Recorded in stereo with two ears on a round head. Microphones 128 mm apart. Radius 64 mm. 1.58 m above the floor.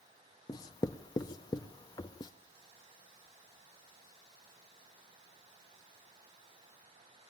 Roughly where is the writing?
Left.